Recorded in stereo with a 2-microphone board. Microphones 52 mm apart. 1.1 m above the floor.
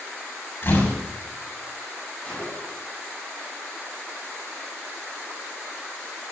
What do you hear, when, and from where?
0.6 s a door slam: 45° left (ahead or behind), 6 m
2.2 s a gunshot: 15° left (ahead or behind), 8 m